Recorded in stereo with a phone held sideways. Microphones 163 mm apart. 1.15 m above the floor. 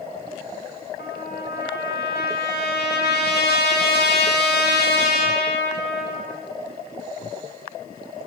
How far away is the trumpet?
About 2.5 m.